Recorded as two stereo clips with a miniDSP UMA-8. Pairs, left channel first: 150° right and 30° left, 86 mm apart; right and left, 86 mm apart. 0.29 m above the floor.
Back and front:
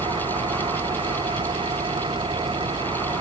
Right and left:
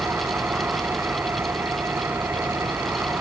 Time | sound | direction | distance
0.0 | an engine running | 25° left | ?